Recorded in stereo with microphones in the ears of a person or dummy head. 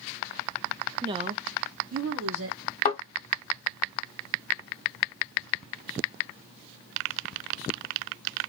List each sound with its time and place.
1.0 s a woman speaking: 20° right (ahead or behind), 0.5 m; by 2.6 s 60° right (ahead or behind), 1.1 m
2.9 s a thud: 45° left (ahead or behind), 1.1 m